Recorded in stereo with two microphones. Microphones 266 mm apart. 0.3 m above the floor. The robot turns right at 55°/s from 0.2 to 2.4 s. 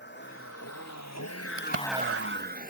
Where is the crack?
55° right (ahead or behind); by 1.9 s 60° right (ahead or behind).